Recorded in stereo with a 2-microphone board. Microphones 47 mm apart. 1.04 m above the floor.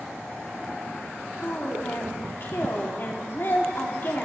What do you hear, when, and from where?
1.4 s a woman speaking: 50° left (ahead or behind), 1.8 m